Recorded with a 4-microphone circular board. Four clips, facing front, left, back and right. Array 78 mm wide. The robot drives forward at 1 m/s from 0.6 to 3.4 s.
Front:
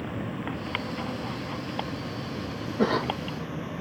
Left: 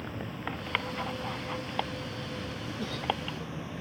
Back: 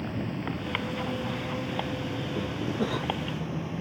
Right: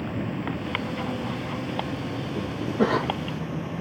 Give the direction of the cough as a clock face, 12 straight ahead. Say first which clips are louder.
Right 11 dB, front 7 dB; 2 o'clock.